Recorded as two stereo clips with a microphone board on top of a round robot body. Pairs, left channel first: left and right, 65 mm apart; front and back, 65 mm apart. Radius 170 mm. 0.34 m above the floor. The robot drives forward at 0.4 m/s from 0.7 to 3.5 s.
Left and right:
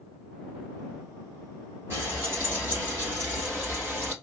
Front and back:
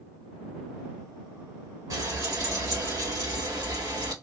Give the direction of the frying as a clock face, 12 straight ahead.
5 o'clock.